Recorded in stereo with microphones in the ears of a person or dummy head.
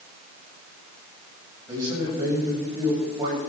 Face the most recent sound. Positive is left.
turn(degrees=-20)  # may be behind; listen again after turning